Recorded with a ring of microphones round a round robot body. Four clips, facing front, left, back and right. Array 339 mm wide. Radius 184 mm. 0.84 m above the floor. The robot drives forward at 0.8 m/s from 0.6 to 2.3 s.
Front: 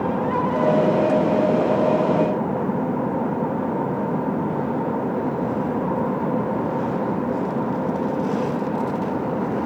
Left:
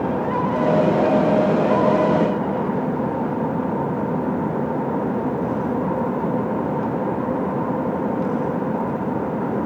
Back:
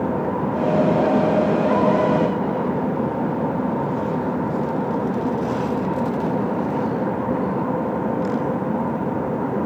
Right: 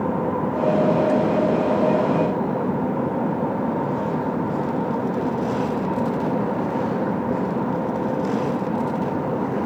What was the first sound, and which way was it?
Only background noise.